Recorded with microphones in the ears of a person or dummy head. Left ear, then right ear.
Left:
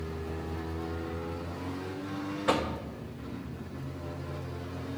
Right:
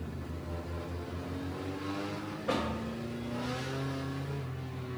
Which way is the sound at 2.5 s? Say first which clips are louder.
Left 4 dB; 30° left (ahead or behind).